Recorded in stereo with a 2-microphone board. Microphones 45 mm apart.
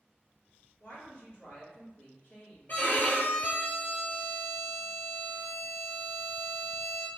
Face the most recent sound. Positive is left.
turn(degrees=40)  # may be behind; listen again after turning